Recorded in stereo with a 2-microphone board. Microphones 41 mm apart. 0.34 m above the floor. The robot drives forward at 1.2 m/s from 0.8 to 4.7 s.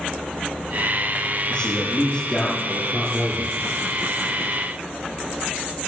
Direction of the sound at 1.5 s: 20° left (ahead or behind).